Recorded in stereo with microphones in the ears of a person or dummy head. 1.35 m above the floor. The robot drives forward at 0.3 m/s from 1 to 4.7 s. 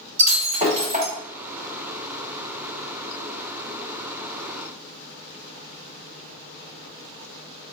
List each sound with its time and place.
0.2 s breaking glass: 35° right (ahead or behind), 1.9 m